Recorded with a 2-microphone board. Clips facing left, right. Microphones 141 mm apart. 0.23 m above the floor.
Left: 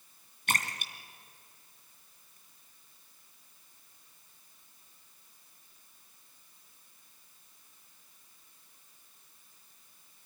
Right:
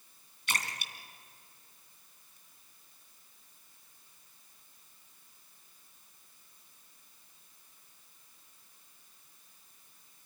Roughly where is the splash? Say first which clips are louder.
Left 3 dB; left.